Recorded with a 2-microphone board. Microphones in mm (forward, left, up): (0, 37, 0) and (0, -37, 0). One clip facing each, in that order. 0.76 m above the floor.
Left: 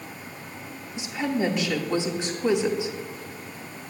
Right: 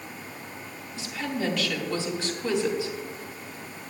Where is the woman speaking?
20° left (ahead or behind), 1.5 m.